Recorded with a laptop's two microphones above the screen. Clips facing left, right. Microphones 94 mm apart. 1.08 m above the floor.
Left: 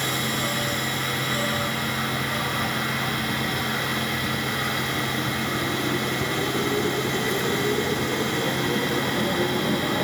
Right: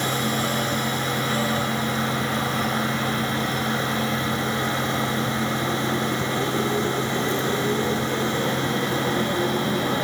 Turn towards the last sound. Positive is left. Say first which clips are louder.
# right 3 dB
turn(degrees=-30)  # may be behind; listen again after turning